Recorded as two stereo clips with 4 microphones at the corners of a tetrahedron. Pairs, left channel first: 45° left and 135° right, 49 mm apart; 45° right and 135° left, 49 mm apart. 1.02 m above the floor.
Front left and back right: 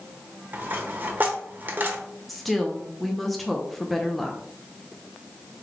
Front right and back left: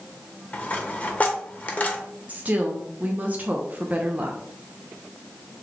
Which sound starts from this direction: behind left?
A woman speaking, at 2.3 s.